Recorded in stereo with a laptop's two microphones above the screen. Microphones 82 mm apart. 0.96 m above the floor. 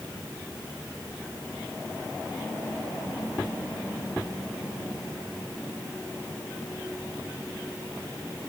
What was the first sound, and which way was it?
Only background noise.